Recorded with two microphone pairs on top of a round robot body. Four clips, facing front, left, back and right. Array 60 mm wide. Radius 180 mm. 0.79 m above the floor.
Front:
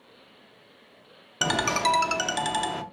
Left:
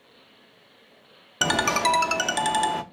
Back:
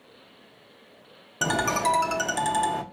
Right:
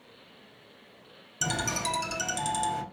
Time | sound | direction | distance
1.4 | a ringtone | 85° left | 0.6 m